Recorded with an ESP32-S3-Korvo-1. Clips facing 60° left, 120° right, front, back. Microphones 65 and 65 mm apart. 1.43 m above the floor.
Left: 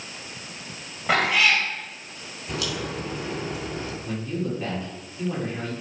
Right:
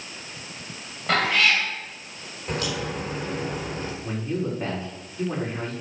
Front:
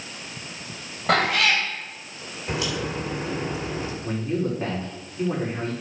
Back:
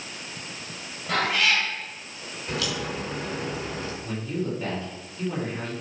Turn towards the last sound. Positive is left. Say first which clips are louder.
# right 2 dB, front 5 dB
turn(degrees=-50)